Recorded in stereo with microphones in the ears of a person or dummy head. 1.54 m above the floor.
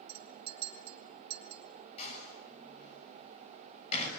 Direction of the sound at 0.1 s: 30° right (ahead or behind).